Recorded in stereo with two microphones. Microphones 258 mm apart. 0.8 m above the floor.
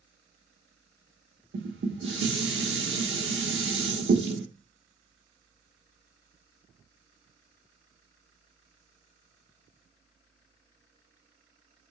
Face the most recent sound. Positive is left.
turn(degrees=-50)  # may be behind; listen again after turning